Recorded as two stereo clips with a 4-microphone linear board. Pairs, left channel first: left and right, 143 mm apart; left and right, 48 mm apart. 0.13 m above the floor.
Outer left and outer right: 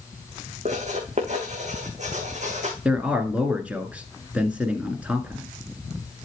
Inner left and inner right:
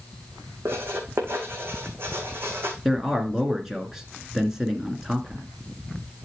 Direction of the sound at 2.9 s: 10° right (ahead or behind).